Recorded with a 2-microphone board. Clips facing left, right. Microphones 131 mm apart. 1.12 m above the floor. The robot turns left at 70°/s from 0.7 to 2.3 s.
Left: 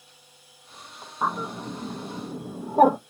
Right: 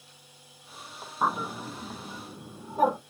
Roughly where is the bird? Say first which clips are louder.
Left 1 dB; centre.